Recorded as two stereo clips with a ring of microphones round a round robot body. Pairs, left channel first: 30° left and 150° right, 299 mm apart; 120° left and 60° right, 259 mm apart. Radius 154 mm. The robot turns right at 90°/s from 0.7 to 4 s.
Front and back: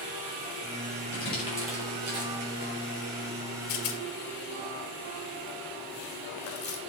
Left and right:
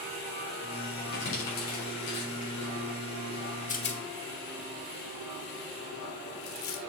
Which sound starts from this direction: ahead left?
A rattle, at 3.7 s.